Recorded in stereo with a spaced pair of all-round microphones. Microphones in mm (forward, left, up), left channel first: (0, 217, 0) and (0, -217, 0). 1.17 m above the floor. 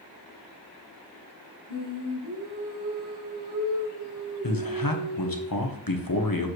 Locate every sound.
1.7 s singing: 70° right (ahead or behind), 3.5 m
4.4 s a man speaking: 55° left (ahead or behind), 1.1 m